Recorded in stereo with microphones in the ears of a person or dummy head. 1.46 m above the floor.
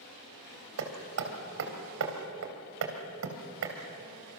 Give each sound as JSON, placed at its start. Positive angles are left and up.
{"t": 0.8, "sound": "hammering", "side_deg": -70, "distance_m": 3.0}